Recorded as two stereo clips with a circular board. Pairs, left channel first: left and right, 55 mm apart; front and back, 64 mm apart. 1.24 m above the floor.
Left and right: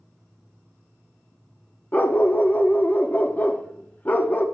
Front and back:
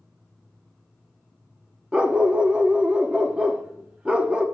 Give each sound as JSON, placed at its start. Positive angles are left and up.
{"t": 1.9, "sound": "a dog barking", "azimuth_deg": 120, "distance_m": 0.8}